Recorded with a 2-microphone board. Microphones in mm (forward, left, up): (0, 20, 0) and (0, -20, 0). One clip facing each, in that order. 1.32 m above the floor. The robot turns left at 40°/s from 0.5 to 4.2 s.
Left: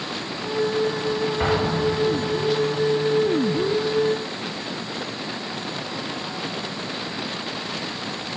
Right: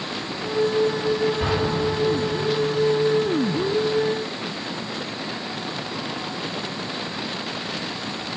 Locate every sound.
1.4 s an explosion: 70° left (ahead or behind), 1.4 m; by 2.5 s 30° left (ahead or behind), 1.4 m